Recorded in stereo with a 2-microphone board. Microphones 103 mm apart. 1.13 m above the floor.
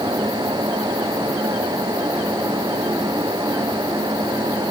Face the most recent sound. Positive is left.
No sound to turn to.